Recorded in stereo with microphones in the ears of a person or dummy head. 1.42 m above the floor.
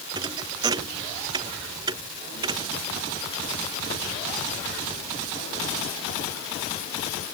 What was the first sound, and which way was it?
A thud, 25° right (ahead or behind).